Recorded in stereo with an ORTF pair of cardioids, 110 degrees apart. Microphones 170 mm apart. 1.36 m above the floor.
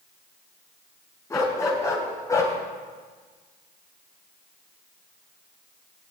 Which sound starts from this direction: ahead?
A dog barking, at 1.3 s.